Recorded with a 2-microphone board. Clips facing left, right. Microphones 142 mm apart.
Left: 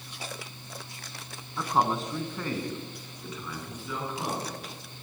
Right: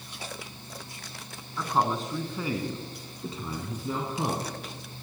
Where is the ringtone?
I don't hear a ringtone.